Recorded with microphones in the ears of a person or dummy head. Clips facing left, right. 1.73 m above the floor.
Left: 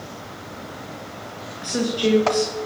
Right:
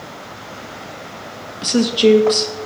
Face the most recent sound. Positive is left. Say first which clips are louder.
# right 8 dB
turn(degrees=-50)  # may be behind; listen again after turning